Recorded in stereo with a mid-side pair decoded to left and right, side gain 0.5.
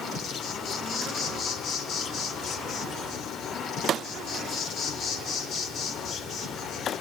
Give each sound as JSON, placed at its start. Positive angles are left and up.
{"t": 0.0, "sound": "an insect", "azimuth_deg": 60, "distance_m": 3.0}